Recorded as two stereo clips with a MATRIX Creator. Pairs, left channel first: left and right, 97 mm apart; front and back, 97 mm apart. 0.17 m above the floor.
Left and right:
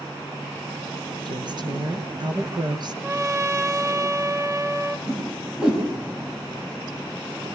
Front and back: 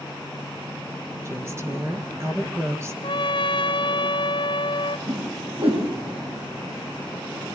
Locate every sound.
1.2 s a woman speaking: 120° right, 3.5 m
3.0 s a trumpet: 30° right, 1.0 m
5.1 s a whoosh: 170° right, 8.5 m